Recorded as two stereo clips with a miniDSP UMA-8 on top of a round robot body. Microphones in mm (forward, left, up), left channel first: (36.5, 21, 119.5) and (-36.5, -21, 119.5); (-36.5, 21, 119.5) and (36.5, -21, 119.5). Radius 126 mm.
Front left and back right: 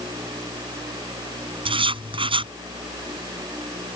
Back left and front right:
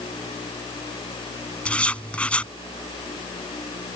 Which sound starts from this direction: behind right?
Writing, at 1.6 s.